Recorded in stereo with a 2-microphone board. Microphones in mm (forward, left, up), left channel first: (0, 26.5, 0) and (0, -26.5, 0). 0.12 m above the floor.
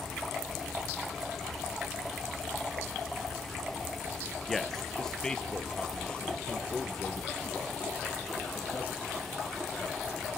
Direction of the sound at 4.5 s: 5° left (ahead or behind).